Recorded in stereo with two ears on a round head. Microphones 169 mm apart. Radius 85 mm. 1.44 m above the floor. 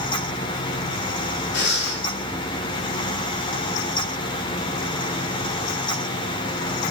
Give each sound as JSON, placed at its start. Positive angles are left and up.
{"t": 1.5, "sound": "breathing", "side_deg": 70, "distance_m": 1.0}